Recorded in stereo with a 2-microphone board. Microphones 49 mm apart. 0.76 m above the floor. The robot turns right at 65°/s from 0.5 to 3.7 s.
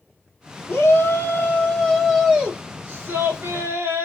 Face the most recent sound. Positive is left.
turn(degrees=-70)